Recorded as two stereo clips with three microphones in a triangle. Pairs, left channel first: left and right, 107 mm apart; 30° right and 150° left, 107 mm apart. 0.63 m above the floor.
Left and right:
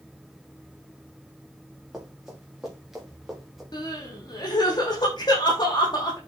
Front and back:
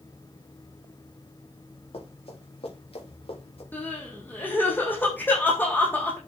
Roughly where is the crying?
Ahead left.